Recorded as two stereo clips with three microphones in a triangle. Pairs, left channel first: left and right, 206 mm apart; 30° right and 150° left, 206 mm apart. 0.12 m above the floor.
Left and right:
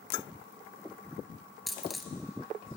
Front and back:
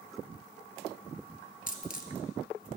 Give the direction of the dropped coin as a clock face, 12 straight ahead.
12 o'clock.